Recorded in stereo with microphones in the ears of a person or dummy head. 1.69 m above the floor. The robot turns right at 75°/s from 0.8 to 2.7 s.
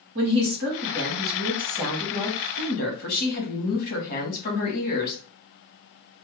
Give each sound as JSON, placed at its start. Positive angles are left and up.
{"t": 0.1, "sound": "a woman speaking", "azimuth_deg": -80, "distance_m": 1.1}